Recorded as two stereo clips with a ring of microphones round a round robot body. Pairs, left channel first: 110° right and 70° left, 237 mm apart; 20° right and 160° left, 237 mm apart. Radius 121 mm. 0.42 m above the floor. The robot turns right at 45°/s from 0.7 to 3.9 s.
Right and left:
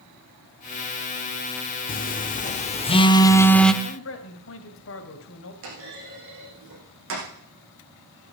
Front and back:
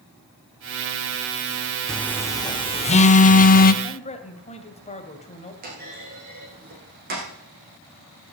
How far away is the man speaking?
About 2.5 m.